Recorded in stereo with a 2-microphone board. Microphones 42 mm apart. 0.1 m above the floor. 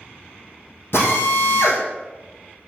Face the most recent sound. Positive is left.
turn(degrees=60)  # may be behind; listen again after turning